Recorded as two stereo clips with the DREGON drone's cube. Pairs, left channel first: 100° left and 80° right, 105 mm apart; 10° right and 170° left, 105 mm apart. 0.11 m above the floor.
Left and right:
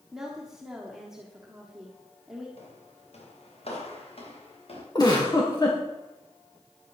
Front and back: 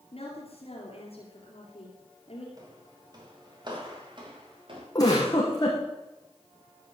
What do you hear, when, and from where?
0.1 s a woman speaking: 5° left, 3 m
2.6 s footsteps: 115° left, 4 m; by 4.8 s 130° left, 4.5 m
5.0 s a giggle: 45° left, 4 m